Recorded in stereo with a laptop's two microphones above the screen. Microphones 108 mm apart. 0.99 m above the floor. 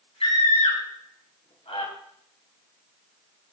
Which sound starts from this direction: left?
A scream, at 0.2 s.